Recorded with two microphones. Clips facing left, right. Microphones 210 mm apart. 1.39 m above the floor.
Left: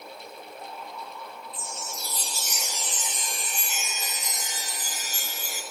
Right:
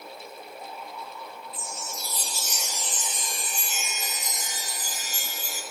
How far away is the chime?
About 2 m.